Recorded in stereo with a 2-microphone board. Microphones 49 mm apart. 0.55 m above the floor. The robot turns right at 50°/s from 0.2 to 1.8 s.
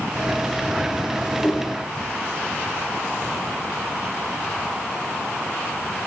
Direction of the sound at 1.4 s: 20° left (ahead or behind).